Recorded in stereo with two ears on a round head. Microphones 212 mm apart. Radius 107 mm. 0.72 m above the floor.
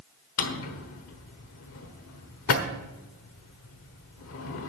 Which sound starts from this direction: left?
A drawer, at 0.4 s.